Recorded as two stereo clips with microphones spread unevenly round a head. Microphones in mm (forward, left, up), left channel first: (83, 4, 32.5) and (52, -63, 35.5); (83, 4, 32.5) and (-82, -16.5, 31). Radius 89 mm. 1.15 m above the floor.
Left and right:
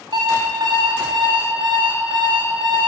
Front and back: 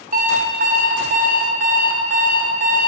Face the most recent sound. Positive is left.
turn(degrees=-140)